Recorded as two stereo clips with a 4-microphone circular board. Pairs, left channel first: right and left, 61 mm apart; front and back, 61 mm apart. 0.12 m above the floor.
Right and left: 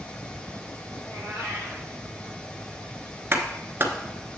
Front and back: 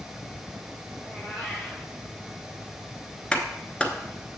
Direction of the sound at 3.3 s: 65° left.